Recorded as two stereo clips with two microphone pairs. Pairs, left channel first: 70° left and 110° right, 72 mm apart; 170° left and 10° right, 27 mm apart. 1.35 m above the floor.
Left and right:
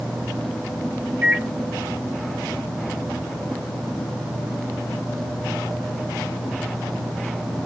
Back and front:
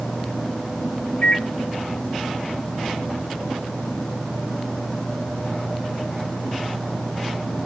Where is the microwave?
175° right, 1.0 m.